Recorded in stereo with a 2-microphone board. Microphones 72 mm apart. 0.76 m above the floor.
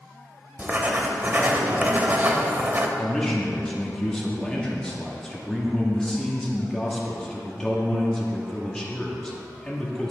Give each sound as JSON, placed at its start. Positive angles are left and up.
{"t": 0.6, "sound": "writing", "side_deg": -25, "distance_m": 0.6}
{"t": 3.0, "sound": "a man speaking", "side_deg": 10, "distance_m": 1.3}